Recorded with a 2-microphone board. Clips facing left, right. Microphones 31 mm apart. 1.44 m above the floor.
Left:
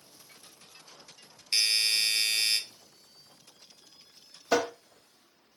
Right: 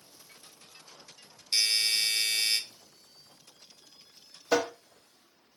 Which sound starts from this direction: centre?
Tapping, at 4.5 s.